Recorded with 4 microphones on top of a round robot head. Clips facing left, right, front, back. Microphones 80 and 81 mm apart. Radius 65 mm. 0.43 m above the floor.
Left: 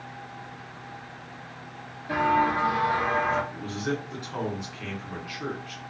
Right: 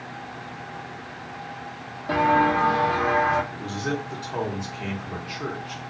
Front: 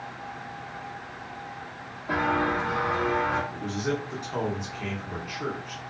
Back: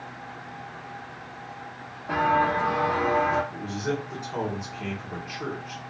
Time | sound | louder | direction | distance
2.1 | footsteps | right 3 dB, back 3 dB | 90° right | 0.7 m
3.5 | a man speaking | right 2 dB, even | 100° right | 0.9 m